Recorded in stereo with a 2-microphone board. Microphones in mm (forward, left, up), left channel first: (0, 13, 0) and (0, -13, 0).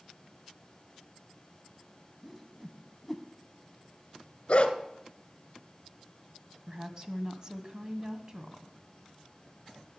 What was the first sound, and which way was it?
A whoosh, centre (ahead or behind).